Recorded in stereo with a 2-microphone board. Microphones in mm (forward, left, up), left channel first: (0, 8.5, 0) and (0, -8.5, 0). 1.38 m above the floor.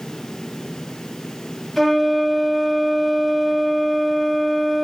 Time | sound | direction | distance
1.8 | a flute | 10° left (ahead or behind) | 1.9 m